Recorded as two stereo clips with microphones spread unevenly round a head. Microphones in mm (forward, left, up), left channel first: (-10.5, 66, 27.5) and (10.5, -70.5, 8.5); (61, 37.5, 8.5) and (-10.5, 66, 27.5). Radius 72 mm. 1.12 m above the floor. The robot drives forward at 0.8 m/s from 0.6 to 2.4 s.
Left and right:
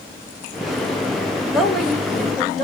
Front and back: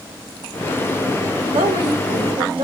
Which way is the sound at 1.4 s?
170° right.